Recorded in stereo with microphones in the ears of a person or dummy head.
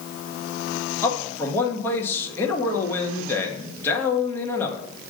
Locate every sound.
1.0 s a man speaking: 15° left (ahead or behind), 1.5 m